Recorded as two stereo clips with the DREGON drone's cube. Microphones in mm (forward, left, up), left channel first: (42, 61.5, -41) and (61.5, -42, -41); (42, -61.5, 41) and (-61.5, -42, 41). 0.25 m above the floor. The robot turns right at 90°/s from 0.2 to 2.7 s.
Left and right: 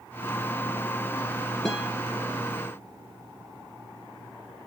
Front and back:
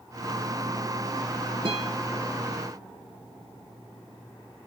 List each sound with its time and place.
1.6 s a guitar: 170° right, 4 m; by 1.9 s 150° right, 4 m